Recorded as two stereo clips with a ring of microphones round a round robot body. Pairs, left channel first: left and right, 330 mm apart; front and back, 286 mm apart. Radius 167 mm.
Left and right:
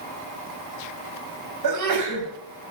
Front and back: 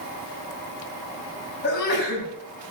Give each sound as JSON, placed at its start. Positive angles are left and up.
{"t": 1.6, "sound": "a sneeze", "azimuth_deg": -60, "distance_m": 3.5}